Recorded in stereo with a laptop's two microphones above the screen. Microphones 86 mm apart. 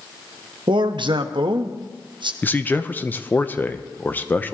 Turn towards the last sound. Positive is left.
turn(degrees=20)  # may be behind; listen again after turning